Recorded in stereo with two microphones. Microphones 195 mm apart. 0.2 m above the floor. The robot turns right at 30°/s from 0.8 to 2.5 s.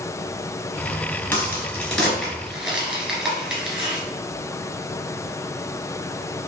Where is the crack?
10° left (ahead or behind), 1.6 m; by 4.0 s 5° right (ahead or behind), 1.6 m.